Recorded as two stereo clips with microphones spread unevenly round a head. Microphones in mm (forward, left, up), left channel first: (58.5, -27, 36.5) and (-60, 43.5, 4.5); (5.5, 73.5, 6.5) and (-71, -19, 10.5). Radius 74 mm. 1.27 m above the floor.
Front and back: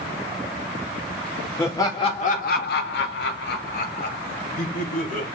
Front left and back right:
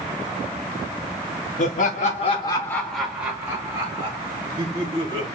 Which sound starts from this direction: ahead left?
Laughter, at 1.6 s.